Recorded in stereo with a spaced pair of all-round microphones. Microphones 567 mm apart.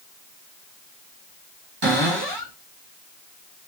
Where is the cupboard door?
40° right (ahead or behind), 1.3 m.